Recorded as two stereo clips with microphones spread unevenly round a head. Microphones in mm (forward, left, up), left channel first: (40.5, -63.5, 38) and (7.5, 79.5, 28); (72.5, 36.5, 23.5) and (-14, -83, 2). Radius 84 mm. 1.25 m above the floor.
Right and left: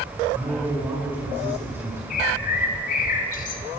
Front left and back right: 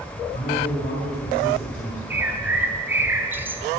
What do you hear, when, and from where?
0.3 s a man speaking: 30° left, 5.5 m
2.1 s a bird: 50° right, 1.2 m